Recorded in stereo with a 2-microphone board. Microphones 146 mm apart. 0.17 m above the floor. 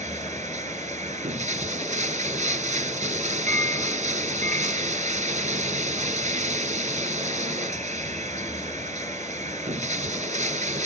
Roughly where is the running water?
Right.